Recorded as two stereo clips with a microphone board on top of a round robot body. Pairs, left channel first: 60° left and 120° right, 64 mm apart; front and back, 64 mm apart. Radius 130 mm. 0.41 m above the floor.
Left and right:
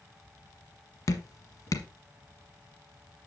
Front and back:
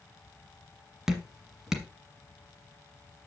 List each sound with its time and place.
1.1 s dripping: 95° left, 1.3 m